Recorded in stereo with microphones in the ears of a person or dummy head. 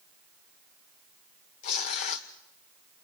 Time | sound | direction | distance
1.6 | tearing paper | 50° left (ahead or behind) | 1.0 m